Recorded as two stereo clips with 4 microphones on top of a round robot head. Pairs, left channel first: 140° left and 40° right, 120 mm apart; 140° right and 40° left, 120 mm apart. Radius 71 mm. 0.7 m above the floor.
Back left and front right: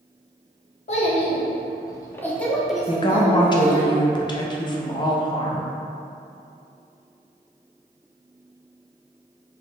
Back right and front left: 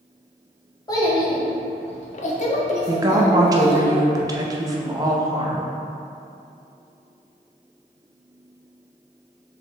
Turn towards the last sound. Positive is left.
turn(degrees=95)